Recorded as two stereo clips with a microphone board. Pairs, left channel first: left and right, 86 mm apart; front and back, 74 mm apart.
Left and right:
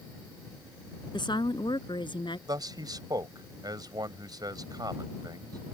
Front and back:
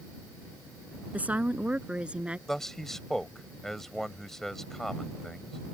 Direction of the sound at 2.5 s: 85° right.